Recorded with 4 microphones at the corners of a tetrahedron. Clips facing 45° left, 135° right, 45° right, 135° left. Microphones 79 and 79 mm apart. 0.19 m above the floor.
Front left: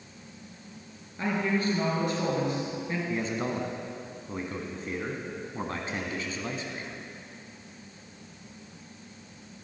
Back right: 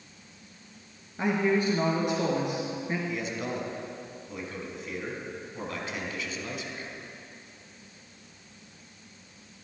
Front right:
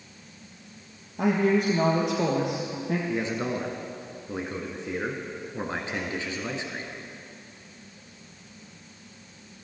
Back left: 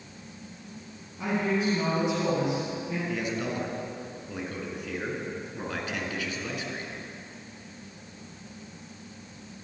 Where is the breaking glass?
I don't hear breaking glass.